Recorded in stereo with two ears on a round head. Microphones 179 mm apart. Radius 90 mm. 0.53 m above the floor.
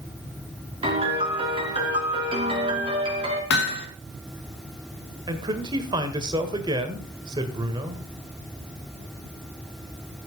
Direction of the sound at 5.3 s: 20° right (ahead or behind).